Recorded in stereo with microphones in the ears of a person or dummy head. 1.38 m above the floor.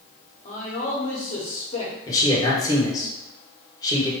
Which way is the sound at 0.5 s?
35° left (ahead or behind).